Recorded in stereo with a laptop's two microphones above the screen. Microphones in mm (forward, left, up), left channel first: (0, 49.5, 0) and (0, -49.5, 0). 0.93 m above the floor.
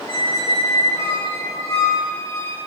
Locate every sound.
0.1 s a squeak: 30° left (ahead or behind), 1.5 m